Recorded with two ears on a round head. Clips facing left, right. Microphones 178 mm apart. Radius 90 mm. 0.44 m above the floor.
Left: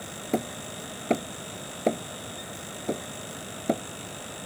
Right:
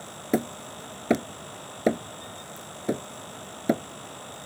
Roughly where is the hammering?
Centre.